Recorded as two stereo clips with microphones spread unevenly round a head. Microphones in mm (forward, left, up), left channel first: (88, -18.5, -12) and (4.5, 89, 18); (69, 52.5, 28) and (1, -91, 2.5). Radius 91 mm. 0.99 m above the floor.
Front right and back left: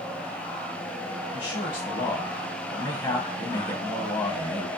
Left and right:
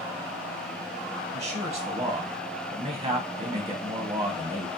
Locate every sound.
1.3 s a man speaking: 85° right, 0.9 m